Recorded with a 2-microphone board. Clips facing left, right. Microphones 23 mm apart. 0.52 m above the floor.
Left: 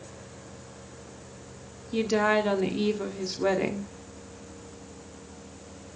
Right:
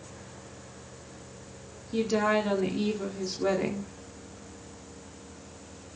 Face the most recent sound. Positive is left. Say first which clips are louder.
# left 2 dB
turn(degrees=10)  # may be behind; listen again after turning